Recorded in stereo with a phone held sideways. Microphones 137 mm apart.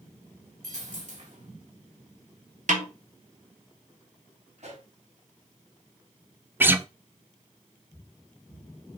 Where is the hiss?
I don't hear a hiss.